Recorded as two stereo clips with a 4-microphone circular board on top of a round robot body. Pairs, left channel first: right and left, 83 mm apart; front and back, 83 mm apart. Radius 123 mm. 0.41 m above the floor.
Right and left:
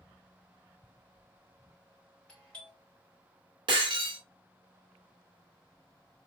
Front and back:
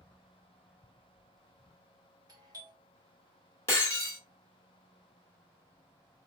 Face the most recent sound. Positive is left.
turn(degrees=60)